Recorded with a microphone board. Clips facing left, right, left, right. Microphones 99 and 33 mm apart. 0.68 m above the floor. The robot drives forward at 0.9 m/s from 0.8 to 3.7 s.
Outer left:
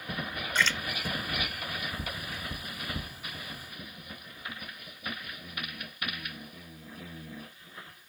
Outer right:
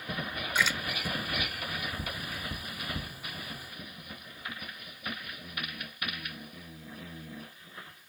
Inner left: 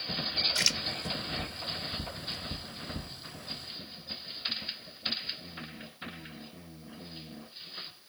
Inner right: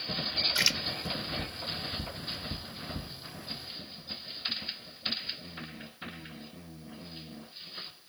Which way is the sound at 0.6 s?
10° right (ahead or behind).